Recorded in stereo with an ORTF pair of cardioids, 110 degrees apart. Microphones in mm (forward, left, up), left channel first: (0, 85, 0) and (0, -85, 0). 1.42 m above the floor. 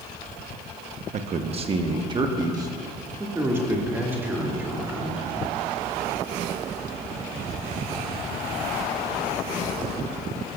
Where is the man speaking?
45° right, 0.9 m; by 5.3 s 10° right, 3 m.